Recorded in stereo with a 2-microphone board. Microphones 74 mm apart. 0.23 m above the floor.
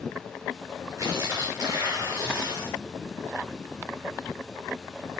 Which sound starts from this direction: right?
Tearing paper, at 1.0 s.